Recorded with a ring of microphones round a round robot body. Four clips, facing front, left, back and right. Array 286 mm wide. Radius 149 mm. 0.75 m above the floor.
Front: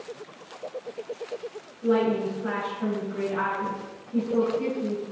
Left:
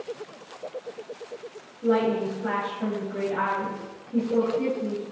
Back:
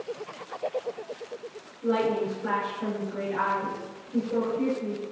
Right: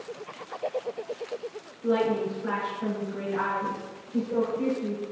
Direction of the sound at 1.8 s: 80° left.